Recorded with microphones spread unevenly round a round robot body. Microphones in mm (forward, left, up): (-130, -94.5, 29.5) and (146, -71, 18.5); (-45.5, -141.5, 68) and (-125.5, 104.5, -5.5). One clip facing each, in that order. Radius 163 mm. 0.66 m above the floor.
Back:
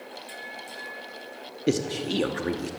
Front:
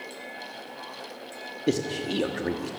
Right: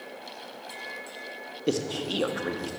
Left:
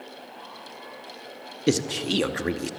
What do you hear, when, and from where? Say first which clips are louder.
1.7 s a man speaking: back 1 dB, left 4 dB; 100° left, 0.7 m